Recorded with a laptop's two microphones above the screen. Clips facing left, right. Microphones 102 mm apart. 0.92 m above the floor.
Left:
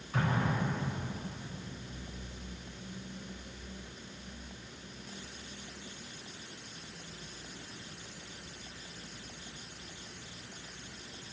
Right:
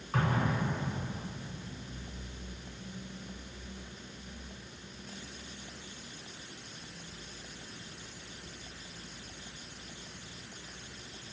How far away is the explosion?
About 9 m.